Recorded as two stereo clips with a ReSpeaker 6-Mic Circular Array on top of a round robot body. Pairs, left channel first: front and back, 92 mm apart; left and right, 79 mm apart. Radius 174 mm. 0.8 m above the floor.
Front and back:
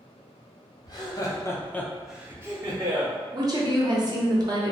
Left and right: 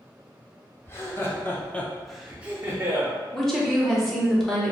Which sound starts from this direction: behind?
A woman speaking, at 3.3 s.